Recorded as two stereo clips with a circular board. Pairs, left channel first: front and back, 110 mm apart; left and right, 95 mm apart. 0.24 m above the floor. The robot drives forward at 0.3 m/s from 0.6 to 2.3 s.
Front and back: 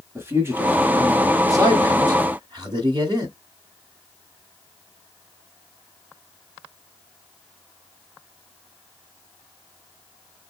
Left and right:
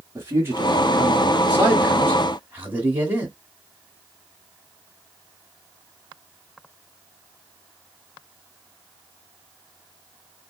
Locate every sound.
0.1 s a man speaking: 130° right, 1.1 m; by 3.4 s 155° right, 1.4 m